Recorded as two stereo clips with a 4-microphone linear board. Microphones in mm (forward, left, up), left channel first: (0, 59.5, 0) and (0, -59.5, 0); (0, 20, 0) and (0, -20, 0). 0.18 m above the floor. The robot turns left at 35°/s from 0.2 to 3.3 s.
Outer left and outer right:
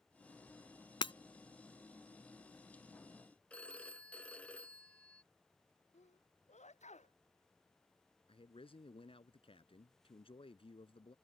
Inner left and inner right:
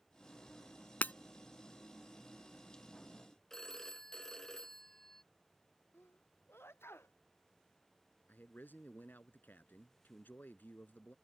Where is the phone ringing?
10° left (ahead or behind).